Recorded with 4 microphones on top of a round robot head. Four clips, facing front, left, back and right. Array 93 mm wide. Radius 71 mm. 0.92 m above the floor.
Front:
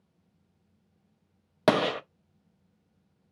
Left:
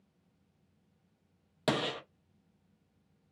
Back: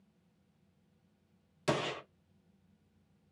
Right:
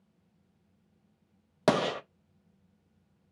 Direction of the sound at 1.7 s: 25° right.